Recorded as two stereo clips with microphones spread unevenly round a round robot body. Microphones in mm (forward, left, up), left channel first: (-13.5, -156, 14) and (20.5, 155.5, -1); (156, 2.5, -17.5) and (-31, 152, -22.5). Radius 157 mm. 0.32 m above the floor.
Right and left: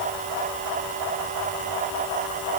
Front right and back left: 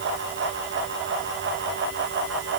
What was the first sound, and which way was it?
Only background noise.